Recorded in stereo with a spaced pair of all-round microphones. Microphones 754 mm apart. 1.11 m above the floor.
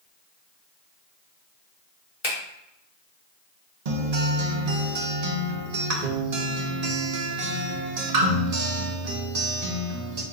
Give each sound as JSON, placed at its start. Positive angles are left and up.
{"t": 2.2, "sound": "a finger snap", "side_deg": 60, "distance_m": 1.4}
{"t": 3.9, "sound": "a guitar", "side_deg": -55, "distance_m": 0.8}